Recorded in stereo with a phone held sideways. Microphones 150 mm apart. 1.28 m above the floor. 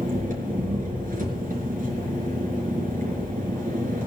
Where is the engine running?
65° right (ahead or behind), 4.5 m.